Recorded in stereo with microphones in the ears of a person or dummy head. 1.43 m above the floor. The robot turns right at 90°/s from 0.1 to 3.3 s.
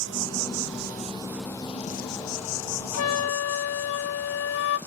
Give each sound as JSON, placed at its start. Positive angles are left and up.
{"t": 0.0, "sound": "an insect", "azimuth_deg": -120, "distance_m": 0.8}
{"t": 2.9, "sound": "a flute", "azimuth_deg": 80, "distance_m": 0.6}